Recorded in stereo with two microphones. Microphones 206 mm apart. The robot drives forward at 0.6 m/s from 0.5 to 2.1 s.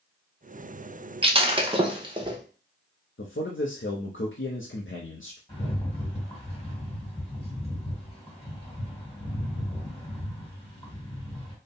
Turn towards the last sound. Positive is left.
turn(degrees=25)  # may be behind; listen again after turning